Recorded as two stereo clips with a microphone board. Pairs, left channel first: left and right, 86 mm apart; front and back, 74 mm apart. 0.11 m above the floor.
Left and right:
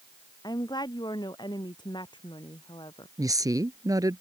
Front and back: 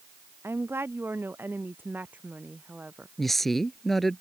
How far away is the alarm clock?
No alarm clock in this recording.